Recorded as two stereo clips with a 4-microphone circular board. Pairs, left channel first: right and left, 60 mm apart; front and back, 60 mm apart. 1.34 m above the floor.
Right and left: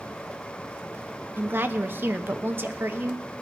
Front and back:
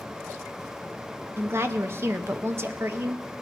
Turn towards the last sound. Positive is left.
turn(degrees=140)